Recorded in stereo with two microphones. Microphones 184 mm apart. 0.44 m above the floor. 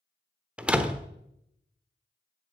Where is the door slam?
5° right (ahead or behind), 0.9 m.